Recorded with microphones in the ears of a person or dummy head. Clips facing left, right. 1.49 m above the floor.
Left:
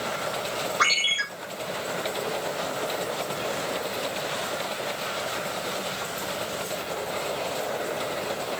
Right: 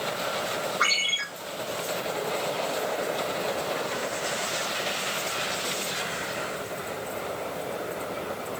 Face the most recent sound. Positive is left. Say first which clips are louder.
# left 2 dB
turn(degrees=60)  # may be behind; listen again after turning